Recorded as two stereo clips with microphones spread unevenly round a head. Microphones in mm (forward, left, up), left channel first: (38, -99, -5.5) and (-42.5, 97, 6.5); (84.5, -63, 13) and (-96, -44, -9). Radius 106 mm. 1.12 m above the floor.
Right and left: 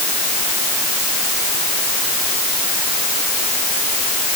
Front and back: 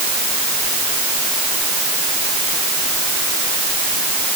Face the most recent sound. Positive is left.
No sound to turn to.